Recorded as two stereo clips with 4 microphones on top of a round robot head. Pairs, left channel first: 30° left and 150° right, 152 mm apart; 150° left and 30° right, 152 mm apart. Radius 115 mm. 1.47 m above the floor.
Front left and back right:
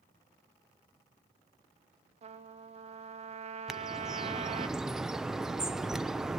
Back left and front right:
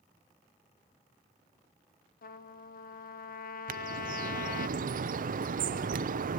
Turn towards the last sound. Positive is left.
turn(degrees=-60)